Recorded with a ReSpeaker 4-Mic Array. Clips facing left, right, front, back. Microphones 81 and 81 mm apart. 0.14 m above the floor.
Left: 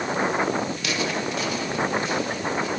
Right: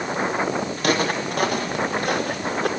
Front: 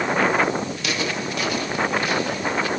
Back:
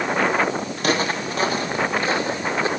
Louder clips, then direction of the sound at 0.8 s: Right 5 dB, back 4 dB; 135° right.